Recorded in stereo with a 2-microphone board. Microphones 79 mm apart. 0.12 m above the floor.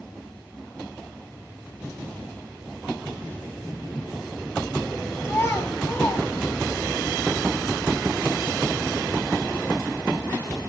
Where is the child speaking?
35° left (ahead or behind), 2 m.